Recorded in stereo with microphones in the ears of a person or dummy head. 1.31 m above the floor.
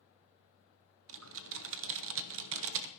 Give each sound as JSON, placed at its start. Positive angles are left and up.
{"t": 1.1, "sound": "typing on a keyboard", "side_deg": -70, "distance_m": 0.8}